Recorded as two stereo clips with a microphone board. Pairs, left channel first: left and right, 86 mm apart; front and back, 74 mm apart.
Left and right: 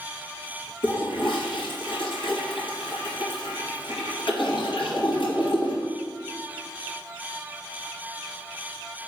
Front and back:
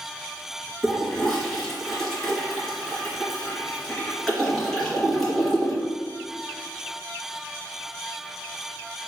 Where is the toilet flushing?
85° left, 1.6 m.